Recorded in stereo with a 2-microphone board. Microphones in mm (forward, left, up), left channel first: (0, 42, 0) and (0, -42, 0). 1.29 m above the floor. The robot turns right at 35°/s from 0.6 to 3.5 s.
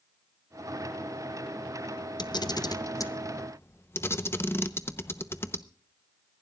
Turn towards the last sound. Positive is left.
turn(degrees=30)  # may be behind; listen again after turning